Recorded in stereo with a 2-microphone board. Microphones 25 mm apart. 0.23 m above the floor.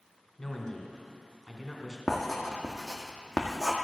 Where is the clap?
No clap in this recording.